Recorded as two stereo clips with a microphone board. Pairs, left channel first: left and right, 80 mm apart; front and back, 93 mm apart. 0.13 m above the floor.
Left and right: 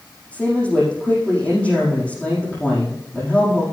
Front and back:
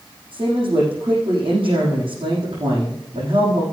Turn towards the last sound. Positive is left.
turn(degrees=165)